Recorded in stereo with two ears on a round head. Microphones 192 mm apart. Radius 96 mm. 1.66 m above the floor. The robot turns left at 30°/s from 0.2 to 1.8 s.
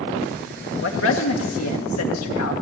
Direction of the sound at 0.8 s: 65° left (ahead or behind).